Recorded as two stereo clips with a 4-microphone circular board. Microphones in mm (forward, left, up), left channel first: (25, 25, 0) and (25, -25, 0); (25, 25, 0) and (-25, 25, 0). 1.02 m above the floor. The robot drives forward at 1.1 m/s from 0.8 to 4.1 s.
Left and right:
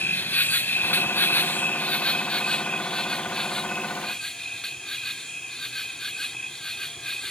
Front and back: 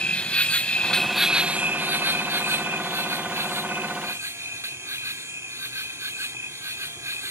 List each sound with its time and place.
0.0 s an insect: 55° left; by 7.3 s 170° left